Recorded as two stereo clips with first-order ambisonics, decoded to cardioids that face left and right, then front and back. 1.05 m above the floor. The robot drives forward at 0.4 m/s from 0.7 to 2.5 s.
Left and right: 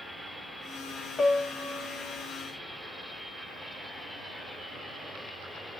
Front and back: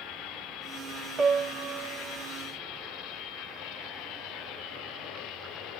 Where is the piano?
145° left, 0.5 m; by 2.2 s 170° left, 0.8 m.